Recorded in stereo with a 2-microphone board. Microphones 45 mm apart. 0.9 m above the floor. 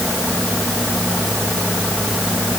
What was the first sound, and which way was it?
Only background noise.